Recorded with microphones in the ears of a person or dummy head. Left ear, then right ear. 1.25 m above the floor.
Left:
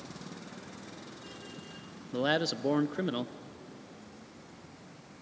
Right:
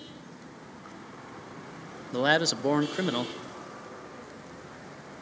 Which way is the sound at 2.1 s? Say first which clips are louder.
Right 5 dB; 15° right (ahead or behind).